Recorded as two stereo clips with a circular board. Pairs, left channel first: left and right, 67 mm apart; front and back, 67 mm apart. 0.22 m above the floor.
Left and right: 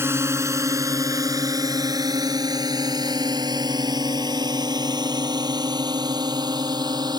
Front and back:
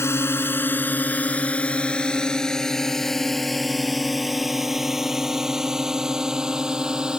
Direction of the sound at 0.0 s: 45° right.